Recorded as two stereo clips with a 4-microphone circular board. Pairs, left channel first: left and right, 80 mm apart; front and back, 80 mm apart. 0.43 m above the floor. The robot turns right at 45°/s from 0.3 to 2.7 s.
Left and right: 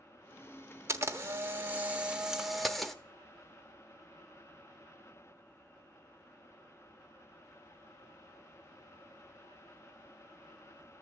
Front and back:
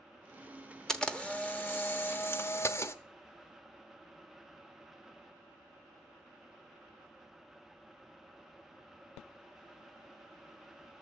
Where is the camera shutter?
75° right, 1.2 m; by 3.0 s 5° left, 1.2 m.